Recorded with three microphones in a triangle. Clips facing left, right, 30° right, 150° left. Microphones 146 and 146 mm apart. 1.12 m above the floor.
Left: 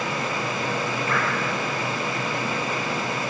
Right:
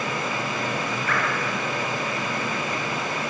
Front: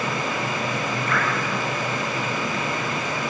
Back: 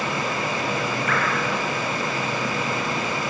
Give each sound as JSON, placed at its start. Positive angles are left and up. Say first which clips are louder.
{"t": 1.1, "sound": "dripping", "louder": "even, even", "azimuth_deg": 25, "distance_m": 9.5}